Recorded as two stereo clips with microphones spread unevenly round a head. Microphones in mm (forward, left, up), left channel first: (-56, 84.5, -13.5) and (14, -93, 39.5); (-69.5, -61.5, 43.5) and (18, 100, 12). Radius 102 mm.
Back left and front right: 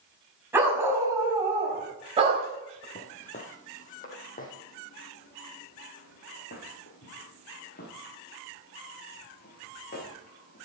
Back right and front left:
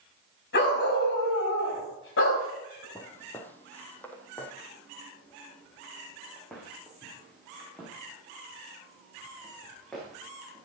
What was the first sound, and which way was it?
A dog barking, 145° right.